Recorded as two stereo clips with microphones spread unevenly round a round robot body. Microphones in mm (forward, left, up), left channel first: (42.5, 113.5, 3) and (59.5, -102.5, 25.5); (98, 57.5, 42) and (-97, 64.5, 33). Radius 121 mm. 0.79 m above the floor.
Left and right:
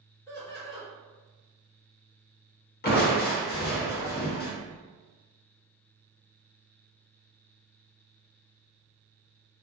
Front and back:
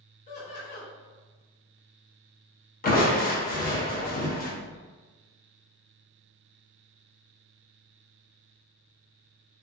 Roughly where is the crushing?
Ahead left.